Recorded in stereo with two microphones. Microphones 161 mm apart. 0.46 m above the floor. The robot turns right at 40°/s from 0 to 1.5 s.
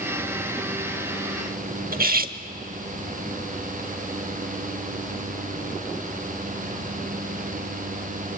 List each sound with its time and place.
1.9 s cutlery clinking: 65° right (ahead or behind), 0.7 m